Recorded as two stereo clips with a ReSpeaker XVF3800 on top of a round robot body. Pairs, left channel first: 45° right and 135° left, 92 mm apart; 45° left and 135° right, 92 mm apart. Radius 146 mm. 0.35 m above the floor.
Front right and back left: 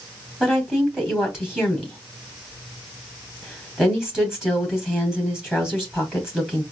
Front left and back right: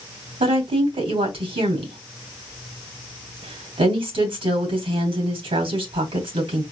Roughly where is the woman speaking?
Behind right.